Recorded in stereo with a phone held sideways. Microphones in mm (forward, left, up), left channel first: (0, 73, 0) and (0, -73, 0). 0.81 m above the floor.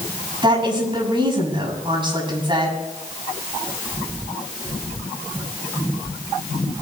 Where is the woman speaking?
35° right (ahead or behind), 7 m.